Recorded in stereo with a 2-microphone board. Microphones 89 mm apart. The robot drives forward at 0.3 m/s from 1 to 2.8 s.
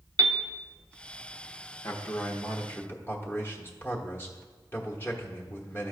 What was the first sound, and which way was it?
A piano, 60° right (ahead or behind).